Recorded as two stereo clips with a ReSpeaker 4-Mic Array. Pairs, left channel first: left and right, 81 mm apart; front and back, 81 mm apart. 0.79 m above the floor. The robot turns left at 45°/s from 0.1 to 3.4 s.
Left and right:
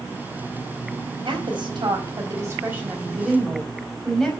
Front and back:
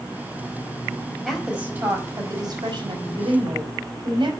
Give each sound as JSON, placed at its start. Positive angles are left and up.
{"t": 1.2, "sound": "a woman speaking", "azimuth_deg": -90, "distance_m": 4.5}